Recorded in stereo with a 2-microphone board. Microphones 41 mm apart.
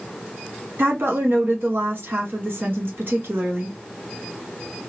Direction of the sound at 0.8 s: 65° right (ahead or behind).